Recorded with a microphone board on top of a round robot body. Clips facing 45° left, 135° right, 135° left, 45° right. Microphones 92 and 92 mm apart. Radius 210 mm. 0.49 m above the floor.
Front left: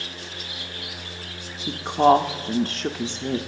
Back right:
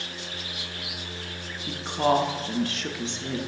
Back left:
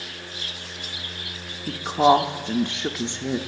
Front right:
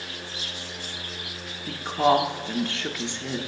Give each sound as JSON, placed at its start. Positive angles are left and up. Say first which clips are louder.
{"t": 1.7, "sound": "a woman speaking", "louder": "front left 7 dB, back left 4 dB", "azimuth_deg": 75, "distance_m": 0.8}